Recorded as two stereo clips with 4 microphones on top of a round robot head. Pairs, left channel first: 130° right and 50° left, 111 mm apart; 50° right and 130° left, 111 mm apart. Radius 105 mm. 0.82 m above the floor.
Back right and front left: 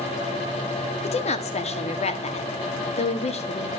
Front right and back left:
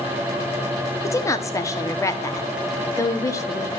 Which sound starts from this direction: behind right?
A woman speaking, at 1.0 s.